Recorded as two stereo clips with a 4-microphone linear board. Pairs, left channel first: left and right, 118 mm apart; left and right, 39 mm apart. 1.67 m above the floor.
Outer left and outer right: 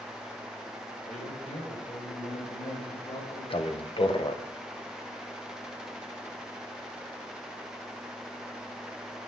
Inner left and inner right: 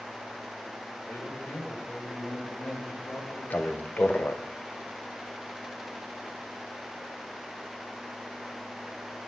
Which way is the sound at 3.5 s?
50° left (ahead or behind).